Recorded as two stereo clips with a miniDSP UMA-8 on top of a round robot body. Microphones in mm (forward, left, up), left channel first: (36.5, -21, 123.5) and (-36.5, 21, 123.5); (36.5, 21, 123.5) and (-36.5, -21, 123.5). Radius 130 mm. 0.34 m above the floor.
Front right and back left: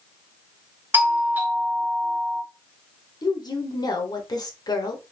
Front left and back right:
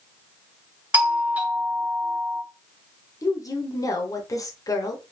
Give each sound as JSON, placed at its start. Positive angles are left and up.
{"t": 0.9, "sound": "a doorbell", "azimuth_deg": 170, "distance_m": 1.5}
{"t": 3.2, "sound": "a woman speaking", "azimuth_deg": -10, "distance_m": 1.3}